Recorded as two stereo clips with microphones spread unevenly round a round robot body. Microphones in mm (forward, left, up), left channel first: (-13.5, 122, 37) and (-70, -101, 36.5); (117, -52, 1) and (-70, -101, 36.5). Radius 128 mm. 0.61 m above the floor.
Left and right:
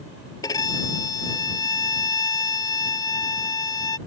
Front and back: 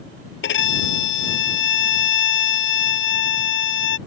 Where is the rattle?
No rattle in this recording.